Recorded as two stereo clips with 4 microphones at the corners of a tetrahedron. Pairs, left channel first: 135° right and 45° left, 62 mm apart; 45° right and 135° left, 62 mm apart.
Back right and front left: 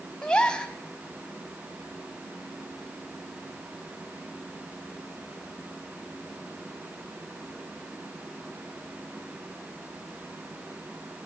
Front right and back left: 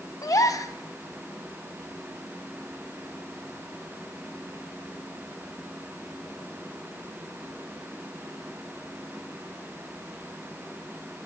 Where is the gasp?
60° right, 2.5 m.